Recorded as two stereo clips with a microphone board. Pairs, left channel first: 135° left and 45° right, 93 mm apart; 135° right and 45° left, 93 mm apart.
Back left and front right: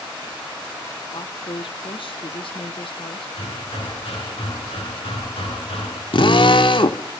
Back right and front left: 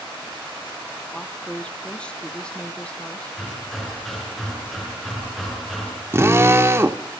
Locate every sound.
1.1 s a woman speaking: 145° left, 1.7 m
3.4 s hammering: 135° left, 8.5 m
6.1 s a drill: 105° left, 1.9 m